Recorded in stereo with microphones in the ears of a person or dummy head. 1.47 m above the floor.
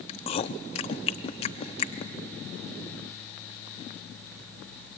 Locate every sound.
0.1 s chewing: 30° left (ahead or behind), 0.7 m